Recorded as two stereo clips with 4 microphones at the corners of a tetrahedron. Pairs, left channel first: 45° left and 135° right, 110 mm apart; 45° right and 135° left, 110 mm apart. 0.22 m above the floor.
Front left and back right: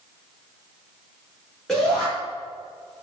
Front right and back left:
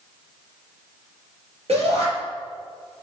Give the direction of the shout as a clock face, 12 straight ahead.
8 o'clock.